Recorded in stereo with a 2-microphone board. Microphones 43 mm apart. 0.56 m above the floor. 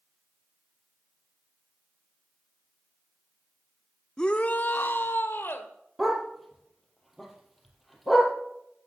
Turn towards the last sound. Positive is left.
turn(degrees=0)  # may be behind; listen again after turning